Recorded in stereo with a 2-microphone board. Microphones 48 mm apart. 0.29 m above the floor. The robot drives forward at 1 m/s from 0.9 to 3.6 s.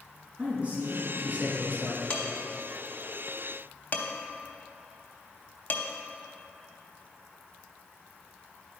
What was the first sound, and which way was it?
A man speaking, 30° right (ahead or behind).